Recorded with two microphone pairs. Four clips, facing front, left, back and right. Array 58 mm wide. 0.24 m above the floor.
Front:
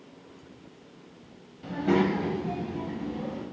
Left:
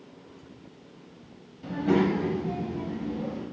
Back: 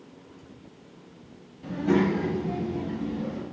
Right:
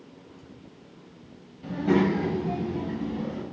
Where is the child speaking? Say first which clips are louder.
Right 1 dB, back 1 dB; 20° left, 0.7 m; by 3.4 s 60° right, 1.2 m.